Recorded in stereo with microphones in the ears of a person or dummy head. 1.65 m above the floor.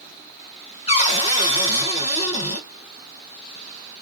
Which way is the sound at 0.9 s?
35° left (ahead or behind).